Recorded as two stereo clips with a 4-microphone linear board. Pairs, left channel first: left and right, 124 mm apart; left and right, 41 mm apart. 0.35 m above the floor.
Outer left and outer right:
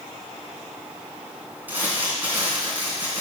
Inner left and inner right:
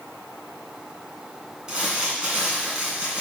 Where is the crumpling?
15° right (ahead or behind), 2 m.